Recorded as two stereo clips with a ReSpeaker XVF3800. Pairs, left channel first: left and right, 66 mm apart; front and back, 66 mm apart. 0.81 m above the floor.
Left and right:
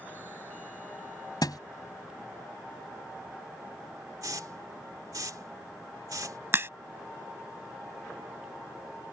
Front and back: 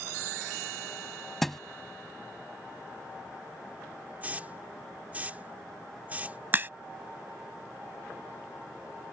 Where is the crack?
130° right.